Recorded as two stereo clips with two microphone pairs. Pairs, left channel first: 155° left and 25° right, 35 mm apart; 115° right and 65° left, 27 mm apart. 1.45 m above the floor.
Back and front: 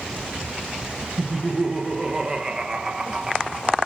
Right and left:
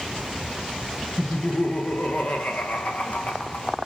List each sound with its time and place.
1.2 s laughter: 95° right, 1.1 m